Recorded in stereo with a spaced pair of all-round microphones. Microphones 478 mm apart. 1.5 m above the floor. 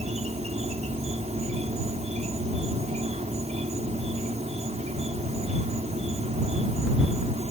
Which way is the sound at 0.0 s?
15° right (ahead or behind).